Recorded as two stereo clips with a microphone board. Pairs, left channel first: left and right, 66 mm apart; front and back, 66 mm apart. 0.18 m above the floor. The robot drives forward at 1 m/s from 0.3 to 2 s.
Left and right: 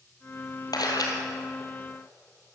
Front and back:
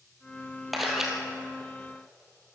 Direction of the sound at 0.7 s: 90° left.